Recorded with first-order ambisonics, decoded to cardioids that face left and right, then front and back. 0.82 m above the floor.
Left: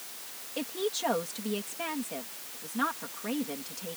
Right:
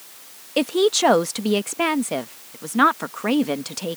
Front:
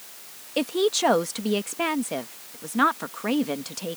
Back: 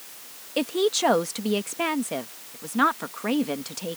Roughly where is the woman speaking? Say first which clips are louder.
Right 14 dB, even; right.